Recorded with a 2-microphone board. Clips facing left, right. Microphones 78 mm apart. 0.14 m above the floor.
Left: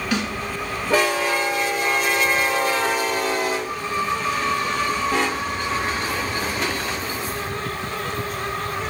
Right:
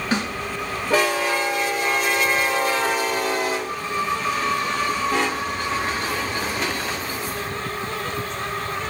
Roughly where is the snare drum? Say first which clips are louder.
Right 1 dB; right.